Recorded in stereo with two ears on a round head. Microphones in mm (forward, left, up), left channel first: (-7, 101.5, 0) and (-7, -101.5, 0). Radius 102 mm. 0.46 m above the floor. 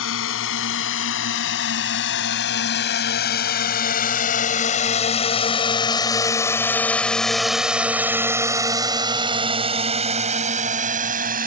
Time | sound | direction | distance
0.0 | a drone | 65° left (ahead or behind) | ?